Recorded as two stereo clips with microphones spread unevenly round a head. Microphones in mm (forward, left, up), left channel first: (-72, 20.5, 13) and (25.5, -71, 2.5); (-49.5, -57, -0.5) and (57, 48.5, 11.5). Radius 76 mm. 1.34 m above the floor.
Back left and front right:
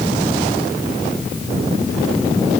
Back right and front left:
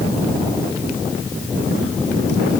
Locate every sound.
Only background noise.